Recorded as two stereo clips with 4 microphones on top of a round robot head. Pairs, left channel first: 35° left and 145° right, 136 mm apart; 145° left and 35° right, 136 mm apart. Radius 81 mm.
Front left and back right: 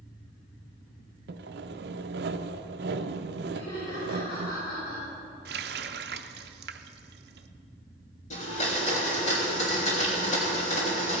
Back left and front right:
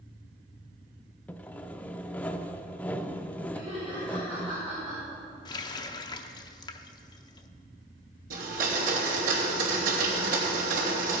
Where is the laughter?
20° left, 5 m.